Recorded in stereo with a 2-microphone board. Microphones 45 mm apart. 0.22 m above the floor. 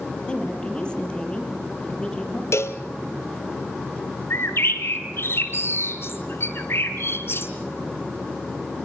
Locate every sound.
0.3 s a woman speaking: 20° left (ahead or behind), 7 m
2.5 s a cowbell: 80° left, 1.9 m
4.3 s a bird: 60° left (ahead or behind), 3 m